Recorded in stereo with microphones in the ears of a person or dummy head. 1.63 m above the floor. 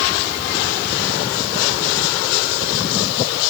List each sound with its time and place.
Only background noise.